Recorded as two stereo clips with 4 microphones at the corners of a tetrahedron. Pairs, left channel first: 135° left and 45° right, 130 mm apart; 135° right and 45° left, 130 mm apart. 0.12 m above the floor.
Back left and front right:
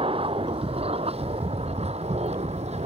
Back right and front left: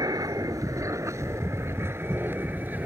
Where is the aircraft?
10° right; by 2.9 s 30° right.